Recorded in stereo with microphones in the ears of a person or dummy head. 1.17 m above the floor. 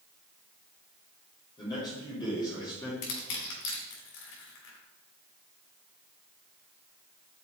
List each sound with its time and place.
1.6 s a man speaking: 30° left (ahead or behind), 3 m
3.0 s crushing: 75° left (ahead or behind), 3.5 m